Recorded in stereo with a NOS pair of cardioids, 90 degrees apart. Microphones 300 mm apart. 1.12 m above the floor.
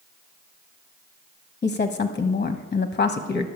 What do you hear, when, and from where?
1.6 s a woman speaking: 25° left, 1.0 m